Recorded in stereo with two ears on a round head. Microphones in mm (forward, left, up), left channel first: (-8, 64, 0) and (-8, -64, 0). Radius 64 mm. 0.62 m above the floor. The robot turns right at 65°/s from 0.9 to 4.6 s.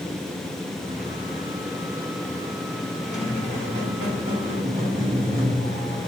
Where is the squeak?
170° left, 1.6 m; by 6.1 s 90° right, 1.6 m.